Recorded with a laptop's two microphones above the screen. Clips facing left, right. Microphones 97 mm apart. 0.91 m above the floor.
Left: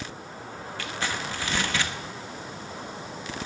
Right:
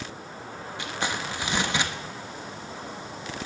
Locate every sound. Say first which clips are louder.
0.8 s crumpling: right 1 dB; 20° right (ahead or behind), 1.0 m